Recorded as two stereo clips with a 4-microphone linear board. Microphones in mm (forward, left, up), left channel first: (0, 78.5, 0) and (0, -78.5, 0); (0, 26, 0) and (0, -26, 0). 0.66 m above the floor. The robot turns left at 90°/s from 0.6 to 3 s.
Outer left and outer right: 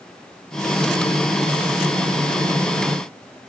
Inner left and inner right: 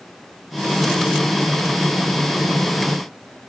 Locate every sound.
Only background noise.